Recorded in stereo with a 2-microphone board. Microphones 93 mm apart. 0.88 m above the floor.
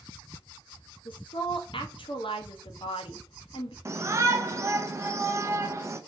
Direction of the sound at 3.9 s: 30° right (ahead or behind).